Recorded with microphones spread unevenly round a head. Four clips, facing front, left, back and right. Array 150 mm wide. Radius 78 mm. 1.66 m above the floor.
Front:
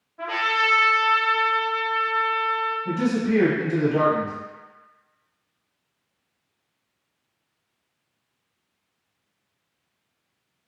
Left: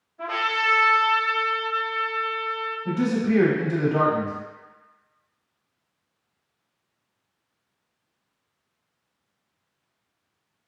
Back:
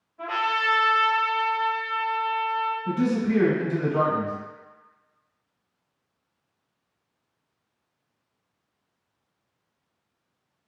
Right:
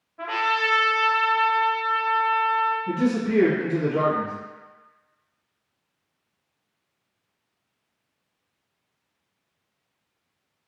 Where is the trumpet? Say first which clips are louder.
Right 2 dB, front 1 dB; 60° right, 1.8 m.